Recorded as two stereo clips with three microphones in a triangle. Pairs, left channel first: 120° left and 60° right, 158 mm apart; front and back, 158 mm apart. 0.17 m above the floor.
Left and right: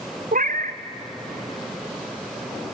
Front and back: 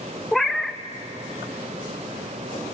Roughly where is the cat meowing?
Right.